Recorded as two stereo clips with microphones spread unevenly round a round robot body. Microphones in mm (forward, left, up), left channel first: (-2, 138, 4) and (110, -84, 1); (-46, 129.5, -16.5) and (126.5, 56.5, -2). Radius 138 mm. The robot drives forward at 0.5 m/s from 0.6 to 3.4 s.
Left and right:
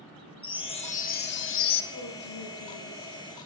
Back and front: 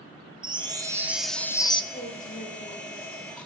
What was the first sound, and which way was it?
A chime, 45° left.